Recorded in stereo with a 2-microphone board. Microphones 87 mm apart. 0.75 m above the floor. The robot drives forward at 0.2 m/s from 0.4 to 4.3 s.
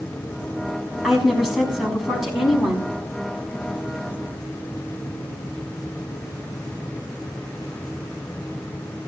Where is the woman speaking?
5° right (ahead or behind), 5 m.